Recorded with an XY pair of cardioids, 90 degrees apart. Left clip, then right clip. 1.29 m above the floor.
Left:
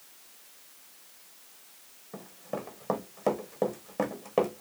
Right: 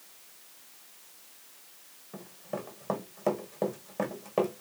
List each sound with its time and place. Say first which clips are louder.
2.1 s running footsteps: left 1 dB; 20° left, 4 m